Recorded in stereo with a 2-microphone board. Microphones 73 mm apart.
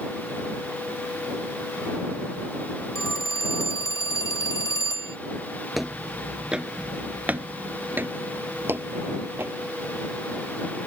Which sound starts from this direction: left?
A phone ringing, at 3.0 s.